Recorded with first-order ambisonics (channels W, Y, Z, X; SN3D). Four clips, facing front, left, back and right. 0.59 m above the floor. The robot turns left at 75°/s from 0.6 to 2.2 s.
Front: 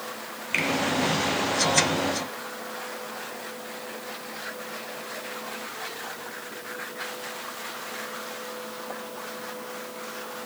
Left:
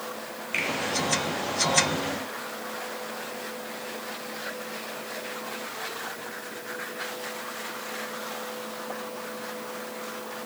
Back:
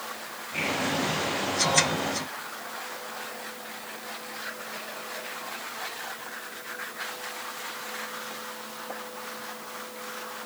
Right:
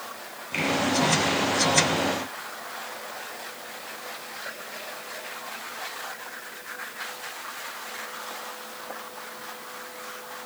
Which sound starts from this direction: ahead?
A finger snap, at 0.5 s.